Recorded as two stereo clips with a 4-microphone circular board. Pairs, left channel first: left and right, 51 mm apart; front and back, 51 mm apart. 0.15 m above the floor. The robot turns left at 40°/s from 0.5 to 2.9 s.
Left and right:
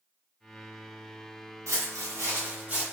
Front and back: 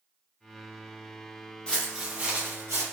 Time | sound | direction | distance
1.7 | footsteps | 70° right | 1.0 m